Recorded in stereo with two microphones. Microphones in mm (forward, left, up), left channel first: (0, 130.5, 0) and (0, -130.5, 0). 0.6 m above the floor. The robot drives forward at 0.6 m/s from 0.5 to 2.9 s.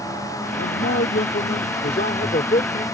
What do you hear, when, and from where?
0.6 s a man speaking: 50° left (ahead or behind); by 2.8 s 30° left (ahead or behind)